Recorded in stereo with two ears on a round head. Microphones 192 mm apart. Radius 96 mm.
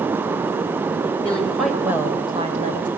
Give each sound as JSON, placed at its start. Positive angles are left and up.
{"t": 1.2, "sound": "a woman speaking", "side_deg": 10, "distance_m": 3.0}